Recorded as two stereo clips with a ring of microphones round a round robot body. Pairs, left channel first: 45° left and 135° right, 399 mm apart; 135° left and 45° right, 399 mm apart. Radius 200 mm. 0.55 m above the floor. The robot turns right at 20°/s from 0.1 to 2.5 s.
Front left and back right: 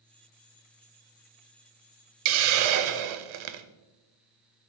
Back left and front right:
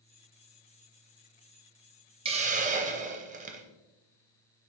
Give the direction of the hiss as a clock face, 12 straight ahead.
4 o'clock.